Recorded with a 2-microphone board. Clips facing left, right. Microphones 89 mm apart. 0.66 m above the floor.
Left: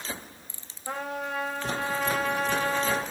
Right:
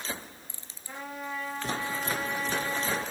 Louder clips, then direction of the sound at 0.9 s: Left 5 dB; 80° left.